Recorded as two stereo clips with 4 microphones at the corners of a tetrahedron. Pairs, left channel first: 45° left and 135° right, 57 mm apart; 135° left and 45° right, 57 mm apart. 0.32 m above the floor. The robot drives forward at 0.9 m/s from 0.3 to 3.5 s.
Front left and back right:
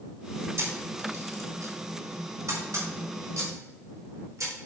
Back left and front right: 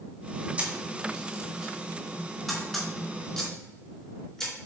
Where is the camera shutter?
105° right, 2.5 m; by 4.5 s 145° right, 4 m.